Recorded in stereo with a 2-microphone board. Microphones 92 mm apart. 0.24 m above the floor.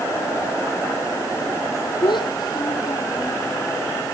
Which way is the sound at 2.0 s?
60° left (ahead or behind).